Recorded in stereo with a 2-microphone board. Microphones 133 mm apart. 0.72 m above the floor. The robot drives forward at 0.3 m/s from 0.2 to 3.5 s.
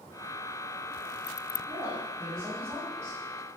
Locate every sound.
1.7 s a woman speaking: 25° right (ahead or behind), 1.7 m; by 3.2 s 20° right (ahead or behind), 2 m